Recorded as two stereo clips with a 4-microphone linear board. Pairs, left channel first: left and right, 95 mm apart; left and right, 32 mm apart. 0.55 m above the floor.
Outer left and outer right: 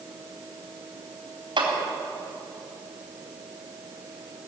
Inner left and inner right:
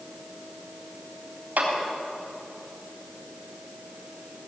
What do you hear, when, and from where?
1.6 s a clap: 60° right (ahead or behind), 3.5 m